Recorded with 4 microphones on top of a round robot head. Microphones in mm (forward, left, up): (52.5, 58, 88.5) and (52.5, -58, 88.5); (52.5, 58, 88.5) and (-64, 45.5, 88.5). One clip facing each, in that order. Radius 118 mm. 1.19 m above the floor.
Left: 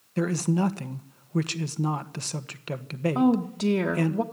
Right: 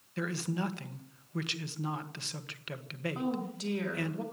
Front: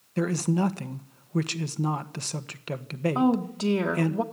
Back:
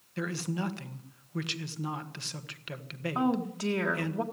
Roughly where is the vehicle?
No vehicle in this recording.